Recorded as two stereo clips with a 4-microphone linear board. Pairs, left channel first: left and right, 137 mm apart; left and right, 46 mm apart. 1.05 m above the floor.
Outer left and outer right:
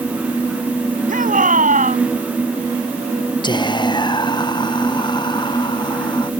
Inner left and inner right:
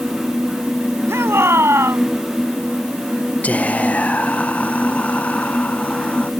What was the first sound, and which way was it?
A shout, 85° right.